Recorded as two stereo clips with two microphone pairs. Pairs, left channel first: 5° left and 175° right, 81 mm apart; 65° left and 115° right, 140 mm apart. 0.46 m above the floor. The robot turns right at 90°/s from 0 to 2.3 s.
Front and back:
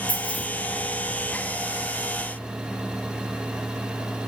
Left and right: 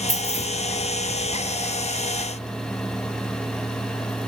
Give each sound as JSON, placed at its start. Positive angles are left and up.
{"t": 0.1, "sound": "keys jangling", "azimuth_deg": 5, "distance_m": 3.0}